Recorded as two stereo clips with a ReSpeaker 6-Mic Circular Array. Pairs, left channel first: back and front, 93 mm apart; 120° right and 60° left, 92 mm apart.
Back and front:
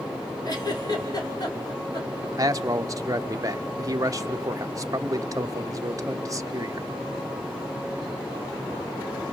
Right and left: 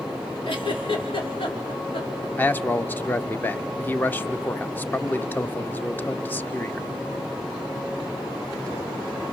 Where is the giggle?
135° right, 3 m.